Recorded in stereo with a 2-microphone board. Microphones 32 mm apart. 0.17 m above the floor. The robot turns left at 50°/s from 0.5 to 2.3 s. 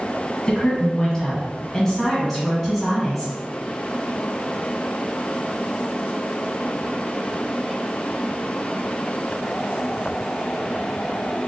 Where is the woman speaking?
25° left (ahead or behind), 1.1 m; by 3.3 s 5° left (ahead or behind), 1.1 m.